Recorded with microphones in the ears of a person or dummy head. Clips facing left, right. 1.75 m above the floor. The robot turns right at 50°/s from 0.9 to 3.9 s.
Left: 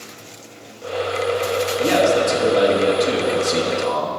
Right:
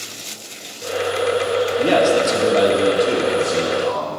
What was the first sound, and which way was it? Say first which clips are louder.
A man speaking: even; 65° right.